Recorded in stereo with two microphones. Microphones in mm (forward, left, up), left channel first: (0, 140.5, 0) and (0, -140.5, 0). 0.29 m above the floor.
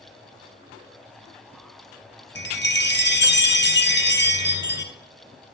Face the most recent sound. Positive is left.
turn(degrees=40)  # may be behind; listen again after turning